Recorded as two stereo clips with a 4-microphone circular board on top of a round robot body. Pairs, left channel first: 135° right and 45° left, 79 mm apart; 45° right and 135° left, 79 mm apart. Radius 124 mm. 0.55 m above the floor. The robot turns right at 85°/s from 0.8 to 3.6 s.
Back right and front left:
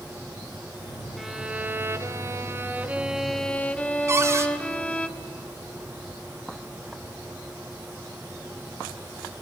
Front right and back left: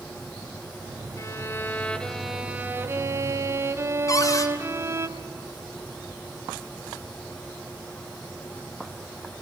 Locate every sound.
1.2 s a violin: 45° right, 1.5 m; by 5.1 s 165° left, 1.5 m
4.1 s a cupboard door: 5° right, 1.8 m